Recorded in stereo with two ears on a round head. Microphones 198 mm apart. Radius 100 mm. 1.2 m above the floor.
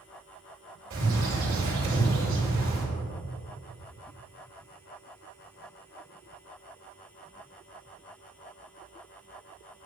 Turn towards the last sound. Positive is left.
turn(degrees=-60)  # may be behind; listen again after turning